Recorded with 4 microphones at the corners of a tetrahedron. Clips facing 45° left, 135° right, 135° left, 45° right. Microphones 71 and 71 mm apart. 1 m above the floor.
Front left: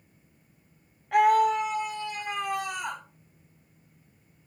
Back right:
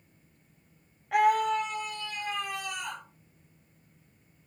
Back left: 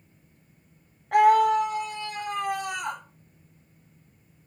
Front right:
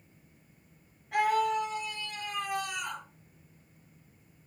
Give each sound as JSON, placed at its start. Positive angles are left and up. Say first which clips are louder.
{"t": 1.1, "sound": "a scream", "louder": "front left 3 dB, back left 9 dB", "azimuth_deg": 135, "distance_m": 1.3}